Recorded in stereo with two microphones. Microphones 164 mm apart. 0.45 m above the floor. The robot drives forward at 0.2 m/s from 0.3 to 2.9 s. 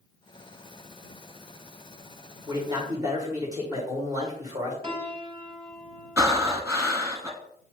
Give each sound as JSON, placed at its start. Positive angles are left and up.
{"t": 2.5, "sound": "a man speaking", "side_deg": -25, "distance_m": 1.5}
{"t": 4.8, "sound": "a piano", "side_deg": -30, "distance_m": 0.8}
{"t": 6.2, "sound": "breathing", "side_deg": -15, "distance_m": 0.8}